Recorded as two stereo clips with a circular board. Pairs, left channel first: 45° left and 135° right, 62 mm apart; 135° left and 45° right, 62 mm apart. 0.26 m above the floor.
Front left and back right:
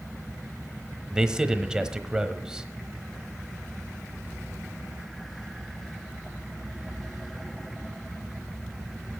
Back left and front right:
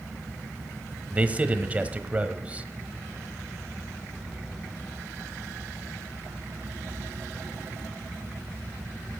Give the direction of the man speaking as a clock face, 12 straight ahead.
2 o'clock.